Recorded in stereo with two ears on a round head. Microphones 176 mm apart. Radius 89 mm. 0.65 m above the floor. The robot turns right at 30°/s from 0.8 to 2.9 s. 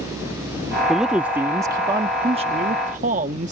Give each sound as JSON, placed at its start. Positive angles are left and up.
{"t": 0.9, "sound": "a man speaking", "azimuth_deg": 180}